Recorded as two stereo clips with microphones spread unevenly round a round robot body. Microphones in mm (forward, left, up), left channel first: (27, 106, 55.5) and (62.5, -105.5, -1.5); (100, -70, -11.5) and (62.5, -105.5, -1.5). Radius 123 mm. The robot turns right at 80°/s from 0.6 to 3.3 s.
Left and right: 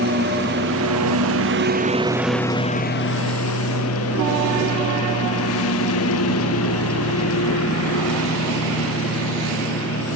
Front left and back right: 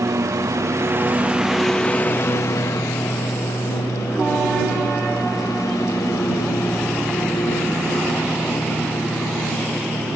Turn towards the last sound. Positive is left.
turn(degrees=90)